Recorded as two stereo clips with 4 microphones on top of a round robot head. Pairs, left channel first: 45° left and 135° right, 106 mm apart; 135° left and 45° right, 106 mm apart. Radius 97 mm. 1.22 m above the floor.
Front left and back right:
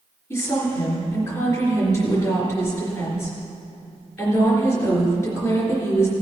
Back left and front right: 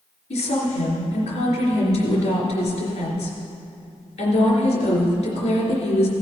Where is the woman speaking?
110° left, 3.5 m.